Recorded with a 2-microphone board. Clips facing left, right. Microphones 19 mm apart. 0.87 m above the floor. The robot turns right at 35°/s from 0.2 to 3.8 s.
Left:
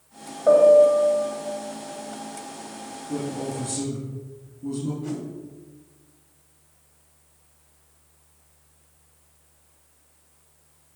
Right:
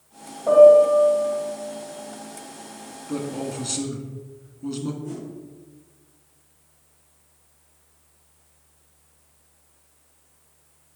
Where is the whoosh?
70° left (ahead or behind), 1.8 m.